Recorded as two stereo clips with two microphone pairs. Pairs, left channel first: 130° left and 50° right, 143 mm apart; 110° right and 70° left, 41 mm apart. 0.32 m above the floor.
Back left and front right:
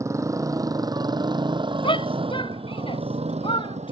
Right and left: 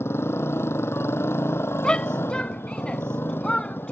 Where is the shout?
Straight behind.